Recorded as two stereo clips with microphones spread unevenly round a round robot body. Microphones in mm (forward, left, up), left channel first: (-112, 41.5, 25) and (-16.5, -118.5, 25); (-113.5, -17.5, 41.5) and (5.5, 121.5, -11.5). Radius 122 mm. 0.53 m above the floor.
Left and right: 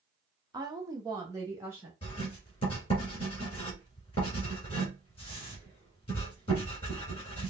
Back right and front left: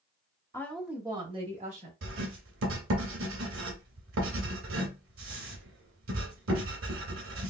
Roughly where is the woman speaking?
Ahead right.